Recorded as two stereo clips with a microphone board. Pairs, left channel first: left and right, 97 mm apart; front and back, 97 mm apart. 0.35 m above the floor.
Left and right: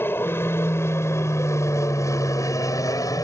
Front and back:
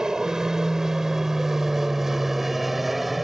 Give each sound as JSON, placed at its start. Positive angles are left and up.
{"t": 0.0, "sound": "an aircraft", "azimuth_deg": 105}